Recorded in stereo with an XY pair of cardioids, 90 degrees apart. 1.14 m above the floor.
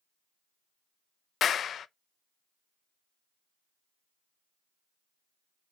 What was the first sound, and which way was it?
A clap, 60° left.